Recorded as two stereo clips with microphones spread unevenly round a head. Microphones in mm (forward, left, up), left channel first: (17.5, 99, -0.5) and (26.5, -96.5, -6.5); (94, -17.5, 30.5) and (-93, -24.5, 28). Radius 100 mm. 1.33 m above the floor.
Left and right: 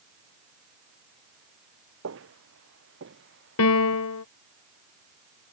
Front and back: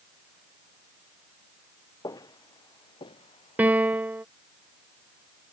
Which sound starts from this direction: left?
A piano, at 3.6 s.